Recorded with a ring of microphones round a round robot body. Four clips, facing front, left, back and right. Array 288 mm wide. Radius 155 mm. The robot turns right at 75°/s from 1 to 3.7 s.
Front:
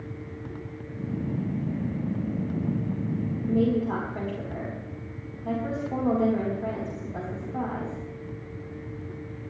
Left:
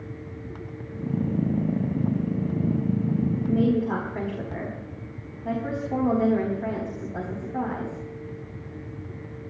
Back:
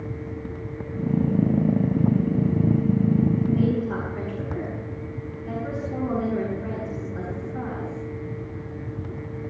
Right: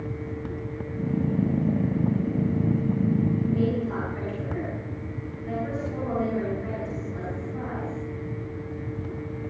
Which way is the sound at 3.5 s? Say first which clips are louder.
Left 3 dB, back 1 dB; 35° left.